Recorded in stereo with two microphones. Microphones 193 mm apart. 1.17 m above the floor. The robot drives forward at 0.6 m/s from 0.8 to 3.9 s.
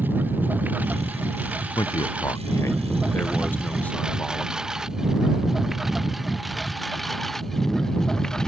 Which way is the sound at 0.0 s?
10° right (ahead or behind).